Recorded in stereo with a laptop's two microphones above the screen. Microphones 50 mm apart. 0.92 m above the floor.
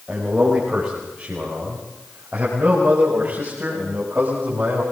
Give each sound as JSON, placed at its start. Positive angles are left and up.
{"t": 0.1, "sound": "a man speaking", "side_deg": -15, "distance_m": 5.5}